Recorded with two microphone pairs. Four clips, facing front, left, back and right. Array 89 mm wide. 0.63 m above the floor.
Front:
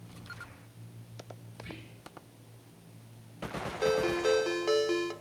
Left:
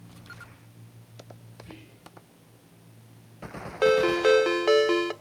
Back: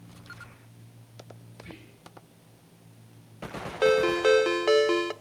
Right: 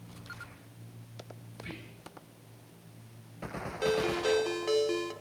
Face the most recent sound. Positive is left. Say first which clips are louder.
# left 9 dB, back 6 dB
turn(degrees=120)